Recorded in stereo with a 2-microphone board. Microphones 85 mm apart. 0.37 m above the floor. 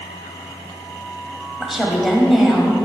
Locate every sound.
1.6 s a woman speaking: 5° right (ahead or behind), 1.7 m